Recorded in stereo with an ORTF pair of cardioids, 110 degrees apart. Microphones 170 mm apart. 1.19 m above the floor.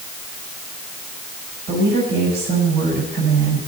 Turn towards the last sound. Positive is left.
turn(degrees=-70)